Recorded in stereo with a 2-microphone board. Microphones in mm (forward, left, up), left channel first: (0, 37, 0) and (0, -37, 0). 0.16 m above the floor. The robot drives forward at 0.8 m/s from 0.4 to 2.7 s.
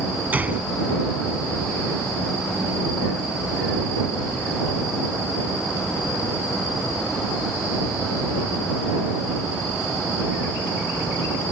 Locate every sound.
0.3 s a gunshot: 25° right (ahead or behind)